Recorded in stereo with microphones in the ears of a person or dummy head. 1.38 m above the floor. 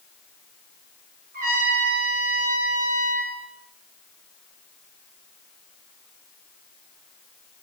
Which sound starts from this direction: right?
A trumpet, at 1.3 s.